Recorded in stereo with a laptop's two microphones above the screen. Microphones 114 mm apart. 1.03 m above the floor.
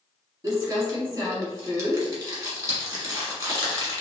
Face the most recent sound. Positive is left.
turn(degrees=-30)  # may be behind; listen again after turning